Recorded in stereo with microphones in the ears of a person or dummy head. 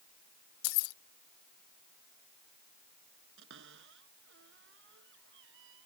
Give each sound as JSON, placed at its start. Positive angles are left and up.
{"t": 0.6, "sound": "keys jangling", "side_deg": 65}
{"t": 3.4, "sound": "a cupboard door", "side_deg": -65}